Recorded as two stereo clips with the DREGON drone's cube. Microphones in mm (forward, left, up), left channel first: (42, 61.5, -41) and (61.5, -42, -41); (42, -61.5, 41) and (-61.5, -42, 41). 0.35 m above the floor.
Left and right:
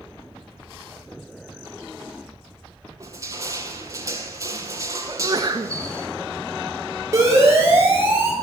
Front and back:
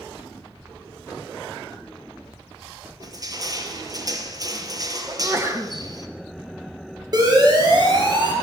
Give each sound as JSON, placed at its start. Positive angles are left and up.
{"t": 3.0, "sound": "crushing", "azimuth_deg": -135, "distance_m": 3.0}
{"t": 5.1, "sound": "a sneeze", "azimuth_deg": -125, "distance_m": 3.0}
{"t": 7.1, "sound": "a siren", "azimuth_deg": -140, "distance_m": 9.0}